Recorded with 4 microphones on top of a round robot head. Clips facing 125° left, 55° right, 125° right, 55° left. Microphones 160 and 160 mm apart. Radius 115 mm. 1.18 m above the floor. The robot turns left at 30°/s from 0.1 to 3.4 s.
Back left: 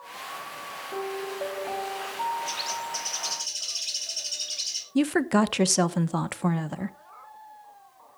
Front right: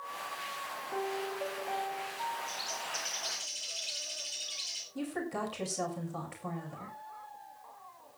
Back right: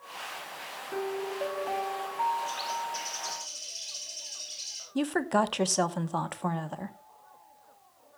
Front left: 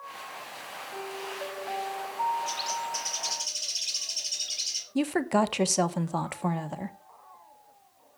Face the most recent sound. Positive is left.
turn(degrees=135)